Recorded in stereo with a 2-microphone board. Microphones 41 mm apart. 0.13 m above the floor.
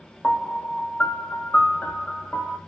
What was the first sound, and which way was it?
A piano, 40° left (ahead or behind).